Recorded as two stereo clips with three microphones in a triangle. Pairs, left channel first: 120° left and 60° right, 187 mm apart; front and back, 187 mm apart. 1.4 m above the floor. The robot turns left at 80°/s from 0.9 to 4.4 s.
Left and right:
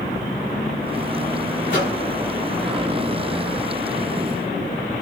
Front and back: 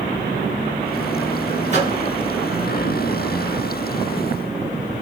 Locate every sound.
1.7 s a microwave: 135° left, 1.6 m; by 2.0 s 110° left, 1.6 m